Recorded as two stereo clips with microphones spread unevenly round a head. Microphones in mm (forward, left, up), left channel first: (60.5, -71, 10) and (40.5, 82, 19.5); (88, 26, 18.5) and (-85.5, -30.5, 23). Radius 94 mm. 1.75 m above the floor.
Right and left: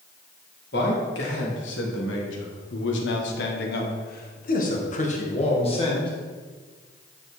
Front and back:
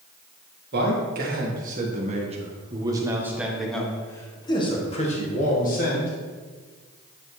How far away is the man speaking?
About 1.9 m.